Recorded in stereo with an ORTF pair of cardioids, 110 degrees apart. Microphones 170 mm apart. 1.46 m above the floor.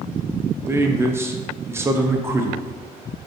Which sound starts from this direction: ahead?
A man speaking, at 0.7 s.